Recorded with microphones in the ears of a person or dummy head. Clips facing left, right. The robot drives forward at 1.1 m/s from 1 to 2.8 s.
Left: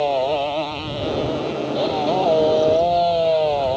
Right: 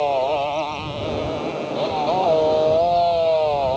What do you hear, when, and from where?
0.0 s a motorcycle: 15° left (ahead or behind)